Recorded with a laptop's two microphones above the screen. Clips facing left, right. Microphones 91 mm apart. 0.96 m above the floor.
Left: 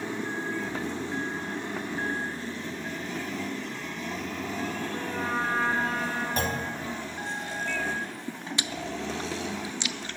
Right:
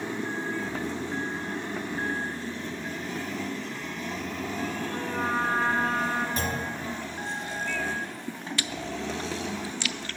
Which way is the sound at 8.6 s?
20° left (ahead or behind).